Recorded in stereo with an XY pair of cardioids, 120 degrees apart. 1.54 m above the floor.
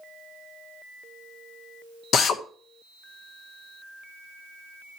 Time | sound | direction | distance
2.1 | a drill | 55° left | 1.2 m